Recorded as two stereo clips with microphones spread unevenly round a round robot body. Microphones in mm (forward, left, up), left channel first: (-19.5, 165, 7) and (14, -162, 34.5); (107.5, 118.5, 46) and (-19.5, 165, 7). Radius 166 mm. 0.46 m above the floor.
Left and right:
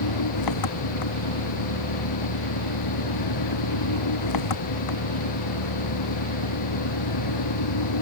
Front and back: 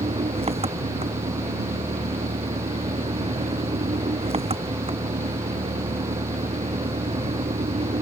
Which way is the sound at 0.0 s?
120° left.